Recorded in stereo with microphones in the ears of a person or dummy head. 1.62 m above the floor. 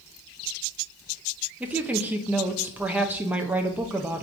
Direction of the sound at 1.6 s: 10° right (ahead or behind).